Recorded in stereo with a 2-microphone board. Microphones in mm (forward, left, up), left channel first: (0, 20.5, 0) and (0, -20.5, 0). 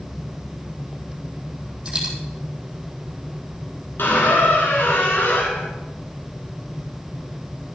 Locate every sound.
1.9 s a dropped coin: 20° right (ahead or behind), 5.5 m
4.0 s a squeak: 65° left (ahead or behind), 2.5 m